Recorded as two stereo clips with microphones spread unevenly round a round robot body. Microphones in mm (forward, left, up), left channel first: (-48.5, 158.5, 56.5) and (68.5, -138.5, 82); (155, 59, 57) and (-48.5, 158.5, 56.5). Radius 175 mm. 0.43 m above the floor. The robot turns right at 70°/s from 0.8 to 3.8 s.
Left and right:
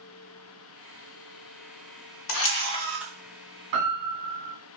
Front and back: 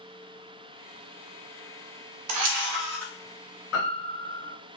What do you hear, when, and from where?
2.3 s a camera shutter: 155° left, 0.6 m; by 3.1 s 150° right, 0.6 m
3.7 s a piano: 65° right, 1.2 m; by 4.5 s 60° right, 1.2 m